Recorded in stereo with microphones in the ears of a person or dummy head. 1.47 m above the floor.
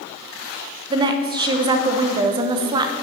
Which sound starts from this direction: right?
A woman speaking, at 0.9 s.